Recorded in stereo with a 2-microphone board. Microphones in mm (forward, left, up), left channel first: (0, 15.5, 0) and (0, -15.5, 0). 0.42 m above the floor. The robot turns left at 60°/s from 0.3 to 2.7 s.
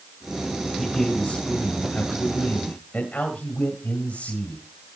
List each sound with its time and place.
0.8 s a man speaking: 175° right, 2 m; by 4.6 s 70° left, 2 m